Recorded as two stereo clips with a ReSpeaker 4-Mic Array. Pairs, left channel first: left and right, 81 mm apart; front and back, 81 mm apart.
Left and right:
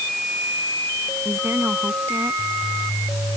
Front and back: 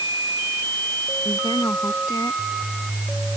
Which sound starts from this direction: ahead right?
A woman speaking, at 1.2 s.